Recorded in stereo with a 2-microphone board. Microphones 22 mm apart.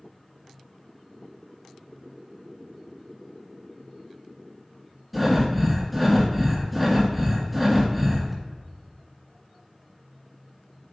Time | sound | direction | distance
5.1 | breathing | 5° right (ahead or behind) | 2.5 m